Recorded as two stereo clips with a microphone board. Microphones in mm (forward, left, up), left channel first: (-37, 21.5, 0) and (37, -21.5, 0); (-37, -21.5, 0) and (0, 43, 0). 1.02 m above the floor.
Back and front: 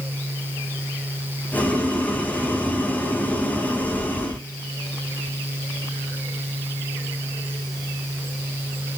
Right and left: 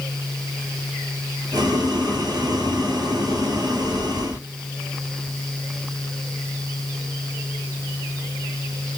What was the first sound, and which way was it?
Boiling, 75° left.